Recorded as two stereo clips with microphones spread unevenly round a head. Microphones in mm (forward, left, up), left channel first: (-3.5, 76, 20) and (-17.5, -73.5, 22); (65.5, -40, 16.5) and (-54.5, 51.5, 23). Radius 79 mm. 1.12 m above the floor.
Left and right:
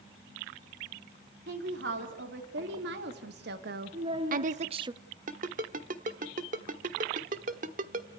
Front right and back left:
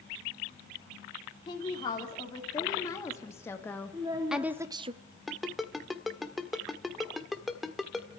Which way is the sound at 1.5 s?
100° right.